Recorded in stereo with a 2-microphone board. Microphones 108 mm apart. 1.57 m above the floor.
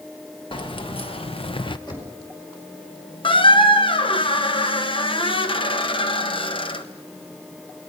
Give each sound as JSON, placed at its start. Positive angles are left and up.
{"t": 0.5, "sound": "keys jangling", "side_deg": 55, "distance_m": 1.5}
{"t": 1.9, "sound": "knocking", "side_deg": 45, "distance_m": 4.5}
{"t": 3.2, "sound": "a squeak", "side_deg": 55, "distance_m": 1.0}